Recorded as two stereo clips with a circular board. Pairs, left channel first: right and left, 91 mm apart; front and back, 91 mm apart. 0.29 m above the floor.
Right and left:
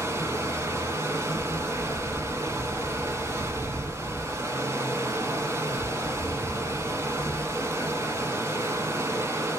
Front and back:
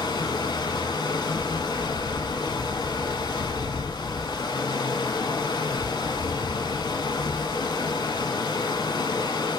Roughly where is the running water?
Ahead left.